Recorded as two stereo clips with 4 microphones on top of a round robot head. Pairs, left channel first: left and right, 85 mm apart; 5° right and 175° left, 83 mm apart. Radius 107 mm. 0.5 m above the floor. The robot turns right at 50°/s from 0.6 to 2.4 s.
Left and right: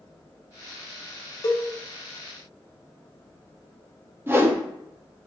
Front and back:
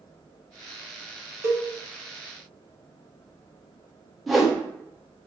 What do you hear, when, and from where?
1.4 s a cowbell: 125° left, 1.2 m; by 1.6 s 135° left, 1.2 m
4.3 s a whoosh: 95° right, 1.2 m